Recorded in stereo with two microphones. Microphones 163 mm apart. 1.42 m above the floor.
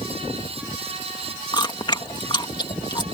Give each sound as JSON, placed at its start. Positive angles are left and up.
{"t": 1.5, "sound": "chewing", "side_deg": 25}